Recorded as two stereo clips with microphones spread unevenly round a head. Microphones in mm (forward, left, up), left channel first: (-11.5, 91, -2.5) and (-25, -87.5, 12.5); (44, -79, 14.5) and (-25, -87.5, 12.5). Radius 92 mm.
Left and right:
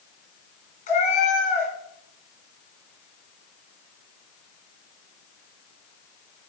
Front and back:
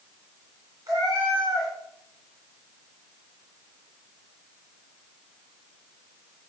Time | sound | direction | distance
0.9 | a cat meowing | 130° left | 2.5 m